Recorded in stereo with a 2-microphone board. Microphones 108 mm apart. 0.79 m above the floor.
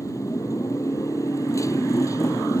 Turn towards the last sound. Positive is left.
turn(degrees=30)  # may be behind; listen again after turning